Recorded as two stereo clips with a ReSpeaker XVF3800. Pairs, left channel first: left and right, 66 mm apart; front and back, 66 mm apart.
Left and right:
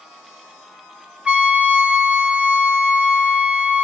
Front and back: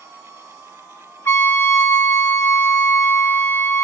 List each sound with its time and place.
1.2 s a trumpet: 25° right, 0.7 m